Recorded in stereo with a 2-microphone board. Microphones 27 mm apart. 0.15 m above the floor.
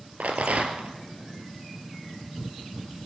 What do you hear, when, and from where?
0.2 s a rattle: 65° right (ahead or behind), 3 m